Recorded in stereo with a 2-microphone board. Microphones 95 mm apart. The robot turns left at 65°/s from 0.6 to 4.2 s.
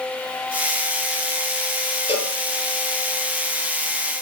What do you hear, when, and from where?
2.1 s a cowbell: 75° left (ahead or behind), 3.5 m; by 2.4 s 65° left (ahead or behind), 3.5 m